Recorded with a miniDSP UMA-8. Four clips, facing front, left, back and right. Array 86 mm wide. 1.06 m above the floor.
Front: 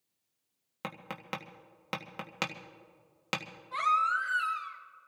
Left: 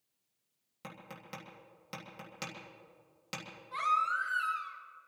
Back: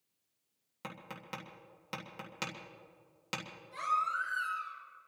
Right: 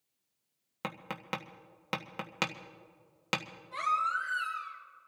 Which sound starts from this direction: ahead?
A baby crying, at 3.7 s.